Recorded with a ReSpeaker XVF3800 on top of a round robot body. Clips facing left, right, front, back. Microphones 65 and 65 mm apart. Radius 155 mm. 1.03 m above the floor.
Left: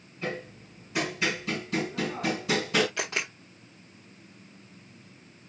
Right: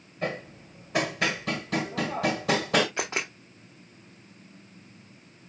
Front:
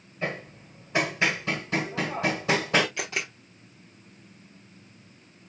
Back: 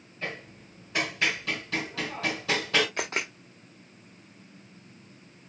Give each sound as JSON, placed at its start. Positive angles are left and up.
{"t": 0.2, "sound": "hammering", "azimuth_deg": -65, "distance_m": 1.6}
{"t": 3.0, "sound": "a camera shutter", "azimuth_deg": -160, "distance_m": 0.5}